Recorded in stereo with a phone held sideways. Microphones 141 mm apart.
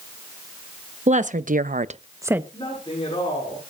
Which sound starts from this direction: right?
A woman speaking, at 1.1 s.